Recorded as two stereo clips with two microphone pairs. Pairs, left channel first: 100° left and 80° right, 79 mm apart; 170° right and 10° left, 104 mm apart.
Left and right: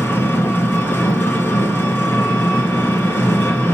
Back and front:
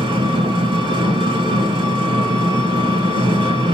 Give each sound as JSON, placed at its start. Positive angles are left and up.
{"t": 0.0, "sound": "an engine running", "azimuth_deg": 40, "distance_m": 2.5}